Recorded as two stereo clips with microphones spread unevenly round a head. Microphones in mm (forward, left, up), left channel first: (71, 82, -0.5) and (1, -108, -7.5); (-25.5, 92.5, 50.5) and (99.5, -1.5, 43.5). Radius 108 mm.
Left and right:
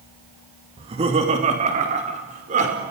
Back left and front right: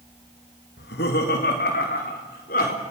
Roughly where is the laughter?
Behind.